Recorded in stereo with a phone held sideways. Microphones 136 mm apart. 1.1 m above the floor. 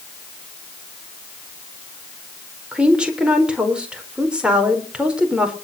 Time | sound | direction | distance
2.7 | a woman speaking | 5° right (ahead or behind) | 4 m